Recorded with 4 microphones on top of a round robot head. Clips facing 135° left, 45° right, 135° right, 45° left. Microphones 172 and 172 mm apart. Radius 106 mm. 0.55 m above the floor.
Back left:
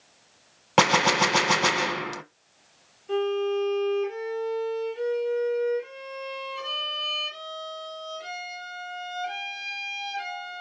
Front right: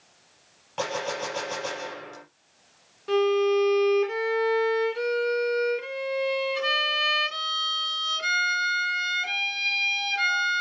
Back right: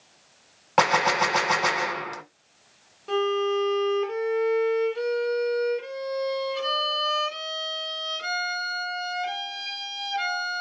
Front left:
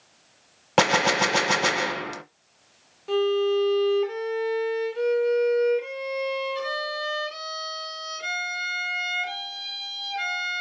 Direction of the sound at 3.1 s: 40° right.